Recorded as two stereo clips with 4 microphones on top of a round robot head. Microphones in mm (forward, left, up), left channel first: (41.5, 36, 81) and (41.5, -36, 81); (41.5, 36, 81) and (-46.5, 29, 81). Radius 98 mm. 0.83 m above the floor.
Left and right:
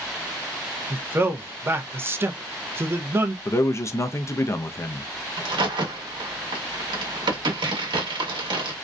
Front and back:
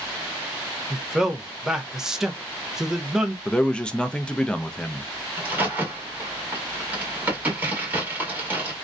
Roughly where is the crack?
Right.